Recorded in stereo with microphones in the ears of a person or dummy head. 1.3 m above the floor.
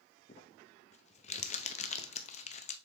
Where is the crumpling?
40° left (ahead or behind), 0.7 m.